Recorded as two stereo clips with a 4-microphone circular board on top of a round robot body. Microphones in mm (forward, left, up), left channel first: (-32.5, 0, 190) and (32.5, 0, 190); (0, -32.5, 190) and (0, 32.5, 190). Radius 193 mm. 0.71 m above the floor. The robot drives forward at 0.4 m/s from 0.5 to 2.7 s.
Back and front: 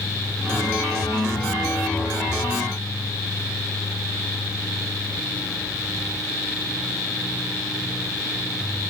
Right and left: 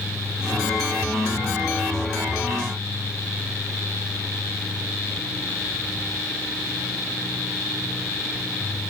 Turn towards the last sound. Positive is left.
No sound to turn to.